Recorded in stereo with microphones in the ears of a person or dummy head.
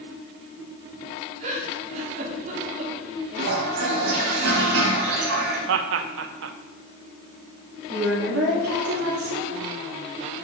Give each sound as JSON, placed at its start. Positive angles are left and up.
{"t": 1.4, "sound": "a giggle", "side_deg": -50, "distance_m": 2.0}
{"t": 3.4, "sound": "a toilet flushing", "side_deg": -80, "distance_m": 2.0}
{"t": 5.7, "sound": "laughter", "side_deg": -65, "distance_m": 0.6}
{"t": 7.9, "sound": "a woman speaking", "side_deg": -85, "distance_m": 3.0}